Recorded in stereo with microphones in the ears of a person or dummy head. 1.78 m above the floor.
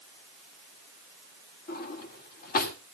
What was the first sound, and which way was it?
A drawer, 40° left (ahead or behind).